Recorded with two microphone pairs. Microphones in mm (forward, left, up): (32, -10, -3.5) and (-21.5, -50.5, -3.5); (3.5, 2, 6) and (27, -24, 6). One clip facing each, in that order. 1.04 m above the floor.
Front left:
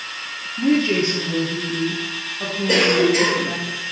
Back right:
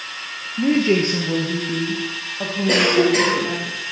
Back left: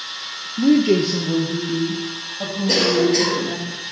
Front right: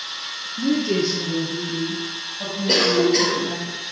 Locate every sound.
0.6 s a woman speaking: 145° left, 0.7 m; by 3.7 s 150° right, 2 m
2.7 s a cough: 115° right, 2.5 m